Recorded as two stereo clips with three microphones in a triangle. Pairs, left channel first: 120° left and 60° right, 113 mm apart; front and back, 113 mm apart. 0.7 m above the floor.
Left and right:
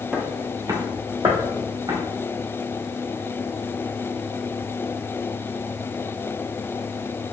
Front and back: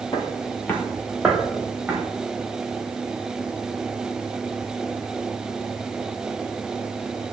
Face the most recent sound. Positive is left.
turn(degrees=-95)